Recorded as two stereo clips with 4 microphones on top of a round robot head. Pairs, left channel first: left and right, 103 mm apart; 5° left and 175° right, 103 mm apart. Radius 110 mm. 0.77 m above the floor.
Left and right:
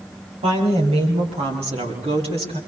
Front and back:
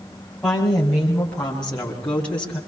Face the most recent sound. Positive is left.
turn(degrees=-75)